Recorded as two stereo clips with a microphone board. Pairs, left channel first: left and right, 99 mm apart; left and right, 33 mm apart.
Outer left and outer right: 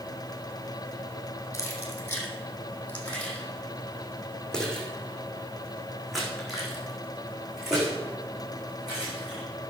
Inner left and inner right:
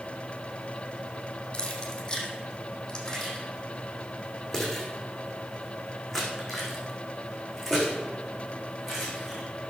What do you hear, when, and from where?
1.5 s keys jangling: 25° left (ahead or behind), 3.5 m; by 9.4 s 10° right (ahead or behind), 7 m